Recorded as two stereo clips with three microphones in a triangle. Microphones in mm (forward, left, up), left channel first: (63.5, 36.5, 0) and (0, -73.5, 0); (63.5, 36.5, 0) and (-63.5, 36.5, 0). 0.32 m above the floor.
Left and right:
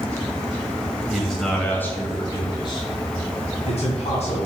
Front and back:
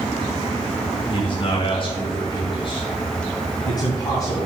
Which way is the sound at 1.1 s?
30° right.